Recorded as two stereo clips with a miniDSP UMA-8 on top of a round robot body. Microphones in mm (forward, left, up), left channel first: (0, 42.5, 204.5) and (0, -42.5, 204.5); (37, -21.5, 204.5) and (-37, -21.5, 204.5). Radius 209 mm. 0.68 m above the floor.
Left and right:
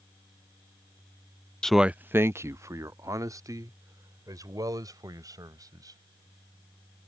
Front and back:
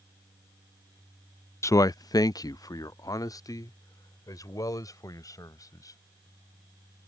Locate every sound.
1.6 s a man speaking: 15° left; by 6.0 s 40° right